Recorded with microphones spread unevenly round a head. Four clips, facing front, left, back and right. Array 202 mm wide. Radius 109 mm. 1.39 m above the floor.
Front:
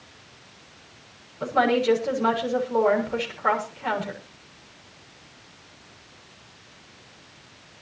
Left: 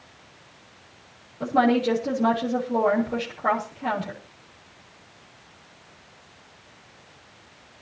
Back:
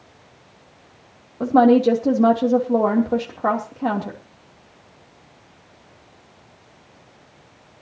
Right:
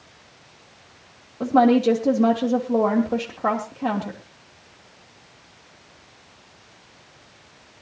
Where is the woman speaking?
155° right, 3 m.